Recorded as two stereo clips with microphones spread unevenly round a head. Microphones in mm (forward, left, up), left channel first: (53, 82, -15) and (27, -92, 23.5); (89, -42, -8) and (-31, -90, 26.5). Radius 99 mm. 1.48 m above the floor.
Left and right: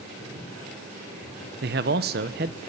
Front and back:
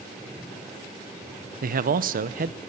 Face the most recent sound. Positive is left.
turn(degrees=-145)